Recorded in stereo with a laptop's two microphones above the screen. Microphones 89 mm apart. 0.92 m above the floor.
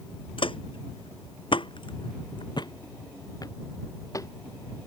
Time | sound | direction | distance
0.4 | footsteps | 70° left (ahead or behind) | ?